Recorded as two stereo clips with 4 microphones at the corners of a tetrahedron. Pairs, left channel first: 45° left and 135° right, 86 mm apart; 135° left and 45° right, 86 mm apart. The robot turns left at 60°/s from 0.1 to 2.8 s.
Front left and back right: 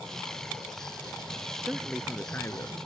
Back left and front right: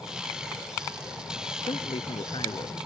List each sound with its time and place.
1.7 s a man speaking: 155° left; by 2.8 s 90° left